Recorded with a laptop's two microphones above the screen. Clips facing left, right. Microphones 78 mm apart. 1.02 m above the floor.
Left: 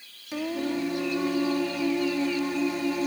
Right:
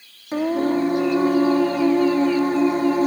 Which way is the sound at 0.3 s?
40° right (ahead or behind).